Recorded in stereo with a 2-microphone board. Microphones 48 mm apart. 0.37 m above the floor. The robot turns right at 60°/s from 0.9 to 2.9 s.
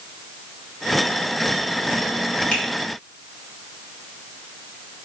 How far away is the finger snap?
About 1.3 m.